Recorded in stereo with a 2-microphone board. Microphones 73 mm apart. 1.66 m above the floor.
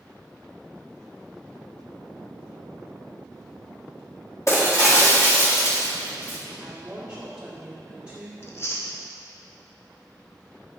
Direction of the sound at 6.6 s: 10° right (ahead or behind).